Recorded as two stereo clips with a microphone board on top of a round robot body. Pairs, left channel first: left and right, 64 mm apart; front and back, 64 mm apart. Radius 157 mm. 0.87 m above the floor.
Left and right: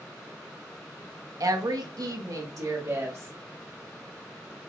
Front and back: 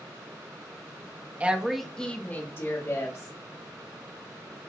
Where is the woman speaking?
115° right, 1.4 m; by 3.3 s 40° right, 2.5 m.